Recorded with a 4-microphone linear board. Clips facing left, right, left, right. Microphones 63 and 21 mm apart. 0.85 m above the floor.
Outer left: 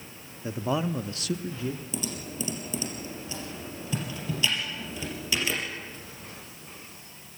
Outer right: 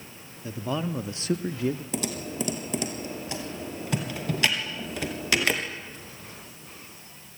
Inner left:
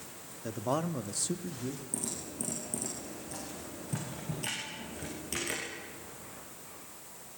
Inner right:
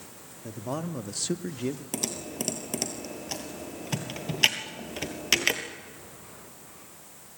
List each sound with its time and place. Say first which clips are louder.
0.4 s a man speaking: outer left 2 dB, inner left 1 dB; 30° left (ahead or behind), 1.4 m; by 1.8 s 70° right (ahead or behind), 1.3 m
1.9 s typing on a keyboard: outer right 4 dB, inner right 6 dB; 70° right (ahead or behind), 3 m